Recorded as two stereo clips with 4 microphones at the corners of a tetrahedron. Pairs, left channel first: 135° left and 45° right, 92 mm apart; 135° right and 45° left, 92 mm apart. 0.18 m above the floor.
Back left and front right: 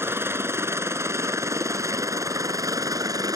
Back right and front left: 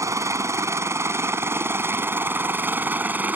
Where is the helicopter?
5° left; by 3.4 s 20° right.